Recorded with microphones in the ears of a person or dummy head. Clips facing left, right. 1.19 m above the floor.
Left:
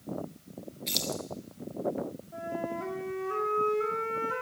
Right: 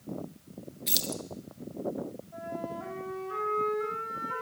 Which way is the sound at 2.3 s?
40° left (ahead or behind).